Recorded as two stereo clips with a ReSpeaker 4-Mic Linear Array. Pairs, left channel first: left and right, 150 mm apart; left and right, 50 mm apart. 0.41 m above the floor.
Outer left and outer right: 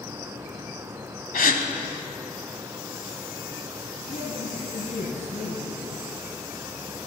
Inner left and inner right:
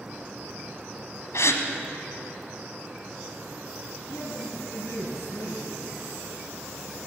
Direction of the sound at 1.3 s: 75° left (ahead or behind).